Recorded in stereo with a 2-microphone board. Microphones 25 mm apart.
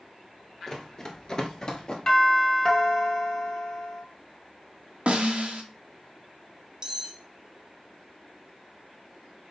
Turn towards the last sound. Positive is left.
turn(degrees=-25)  # may be behind; listen again after turning